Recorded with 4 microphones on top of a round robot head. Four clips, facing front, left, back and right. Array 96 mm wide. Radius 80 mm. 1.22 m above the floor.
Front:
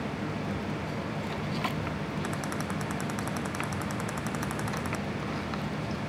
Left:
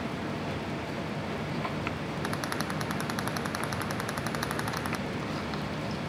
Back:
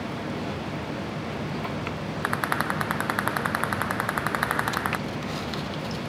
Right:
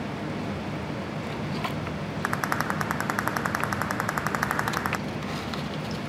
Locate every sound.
2.2 s a rattle: 145° right